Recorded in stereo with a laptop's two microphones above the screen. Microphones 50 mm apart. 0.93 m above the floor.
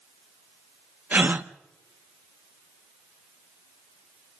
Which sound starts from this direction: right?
A gasp, at 1.1 s.